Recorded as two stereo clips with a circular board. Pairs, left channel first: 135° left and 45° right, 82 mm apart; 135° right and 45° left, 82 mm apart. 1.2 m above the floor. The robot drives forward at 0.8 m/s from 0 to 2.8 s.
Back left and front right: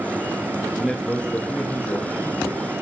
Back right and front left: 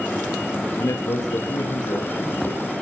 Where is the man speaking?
125° right, 0.6 m; by 2.8 s 170° right, 1.9 m.